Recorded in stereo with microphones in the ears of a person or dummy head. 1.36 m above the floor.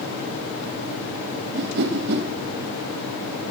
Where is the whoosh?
60° right (ahead or behind), 1.3 m.